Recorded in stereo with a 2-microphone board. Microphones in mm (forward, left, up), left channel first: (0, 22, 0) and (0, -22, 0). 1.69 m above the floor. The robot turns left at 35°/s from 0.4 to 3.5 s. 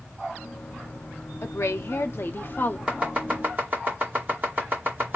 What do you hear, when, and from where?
1.4 s a woman speaking: 90° left, 0.8 m; by 2.8 s 40° left, 0.8 m
2.9 s chopping: 20° right (ahead or behind), 2.5 m; by 5.2 s 40° right (ahead or behind), 2.5 m